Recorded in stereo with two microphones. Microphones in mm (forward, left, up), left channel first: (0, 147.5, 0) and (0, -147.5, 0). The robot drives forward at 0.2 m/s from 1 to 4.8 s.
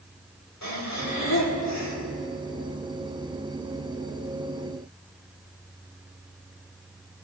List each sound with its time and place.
0.6 s breathing: 65° left (ahead or behind), 2 m